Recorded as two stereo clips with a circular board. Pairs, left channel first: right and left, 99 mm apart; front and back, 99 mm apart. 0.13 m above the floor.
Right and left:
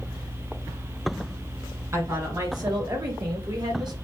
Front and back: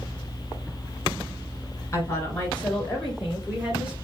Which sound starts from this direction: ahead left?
A woman speaking, at 1.9 s.